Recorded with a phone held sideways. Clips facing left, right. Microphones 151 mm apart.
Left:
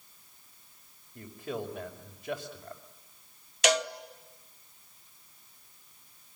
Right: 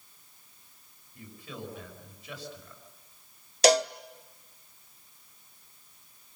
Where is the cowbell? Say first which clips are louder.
Right 5 dB; 35° right (ahead or behind), 0.8 m.